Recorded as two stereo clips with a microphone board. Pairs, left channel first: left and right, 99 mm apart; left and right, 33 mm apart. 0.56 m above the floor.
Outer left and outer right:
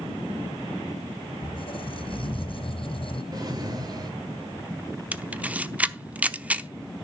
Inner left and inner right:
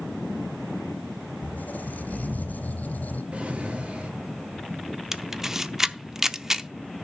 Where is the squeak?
60° left (ahead or behind), 1.8 m.